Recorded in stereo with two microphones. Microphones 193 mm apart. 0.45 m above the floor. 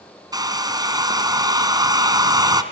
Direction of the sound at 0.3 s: 20° right (ahead or behind).